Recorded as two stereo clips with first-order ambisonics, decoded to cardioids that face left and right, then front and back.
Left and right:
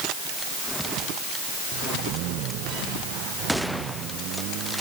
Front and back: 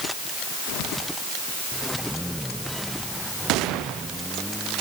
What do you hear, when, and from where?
Only background noise.